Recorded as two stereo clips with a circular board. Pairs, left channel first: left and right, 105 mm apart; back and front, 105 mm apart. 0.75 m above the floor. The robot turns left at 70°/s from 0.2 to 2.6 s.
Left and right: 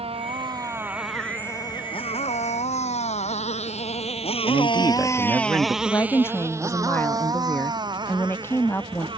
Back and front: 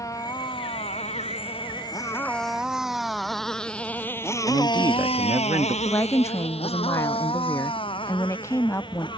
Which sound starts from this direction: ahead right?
A man speaking, at 4.4 s.